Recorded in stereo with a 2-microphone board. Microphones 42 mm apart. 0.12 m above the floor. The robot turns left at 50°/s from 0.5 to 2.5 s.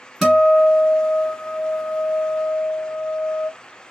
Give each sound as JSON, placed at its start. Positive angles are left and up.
{"t": 0.2, "sound": "a guitar", "azimuth_deg": 180, "distance_m": 2.5}